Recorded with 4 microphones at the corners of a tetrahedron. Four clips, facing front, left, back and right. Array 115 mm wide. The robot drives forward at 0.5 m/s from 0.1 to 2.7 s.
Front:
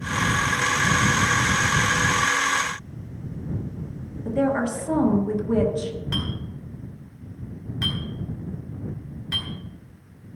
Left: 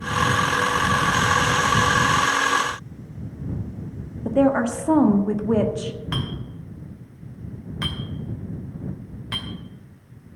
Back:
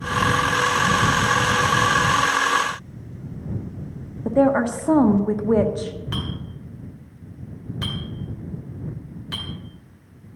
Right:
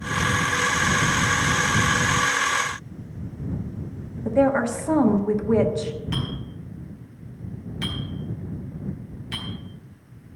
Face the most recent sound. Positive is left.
turn(degrees=110)